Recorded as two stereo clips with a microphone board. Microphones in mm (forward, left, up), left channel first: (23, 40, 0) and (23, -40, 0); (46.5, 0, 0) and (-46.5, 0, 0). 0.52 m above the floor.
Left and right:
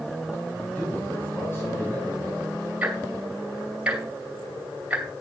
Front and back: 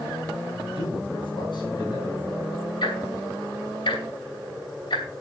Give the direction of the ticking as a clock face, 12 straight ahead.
1 o'clock.